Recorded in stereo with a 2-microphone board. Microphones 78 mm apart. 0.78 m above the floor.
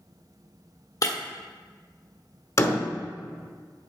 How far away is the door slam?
About 1.3 m.